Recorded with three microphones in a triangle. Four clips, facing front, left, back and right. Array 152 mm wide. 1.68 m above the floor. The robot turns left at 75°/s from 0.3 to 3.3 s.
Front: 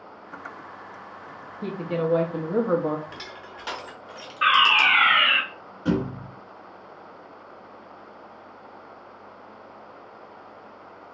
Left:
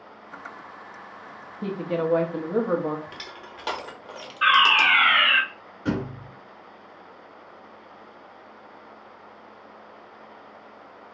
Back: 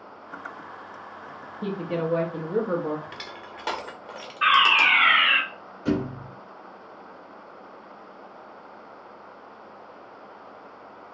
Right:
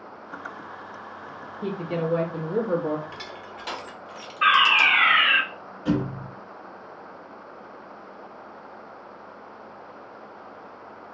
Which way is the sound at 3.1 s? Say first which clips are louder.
Right 3 dB, even; 150° left.